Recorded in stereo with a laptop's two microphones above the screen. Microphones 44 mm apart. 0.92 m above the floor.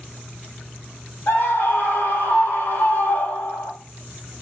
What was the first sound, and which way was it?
A scream, 60° left (ahead or behind).